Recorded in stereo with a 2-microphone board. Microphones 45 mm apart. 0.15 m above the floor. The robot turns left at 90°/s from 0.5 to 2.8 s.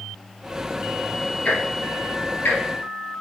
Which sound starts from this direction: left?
Ticking, at 1.4 s.